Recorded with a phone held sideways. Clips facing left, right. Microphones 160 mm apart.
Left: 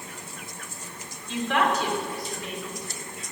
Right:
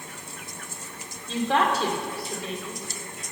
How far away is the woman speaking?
About 2.5 m.